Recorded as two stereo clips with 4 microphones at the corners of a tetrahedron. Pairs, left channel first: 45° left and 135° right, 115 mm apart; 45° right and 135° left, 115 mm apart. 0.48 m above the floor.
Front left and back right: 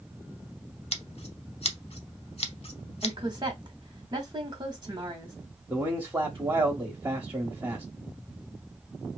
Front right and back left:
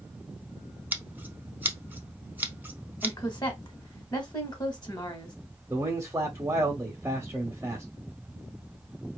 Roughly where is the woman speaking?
Right.